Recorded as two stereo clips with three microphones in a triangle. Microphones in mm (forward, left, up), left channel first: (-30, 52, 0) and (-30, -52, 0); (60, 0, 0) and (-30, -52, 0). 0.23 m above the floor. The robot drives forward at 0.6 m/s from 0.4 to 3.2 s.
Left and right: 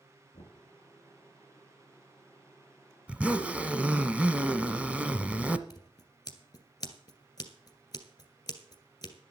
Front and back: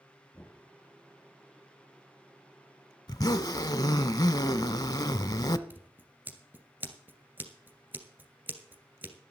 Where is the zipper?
15° right, 0.7 m.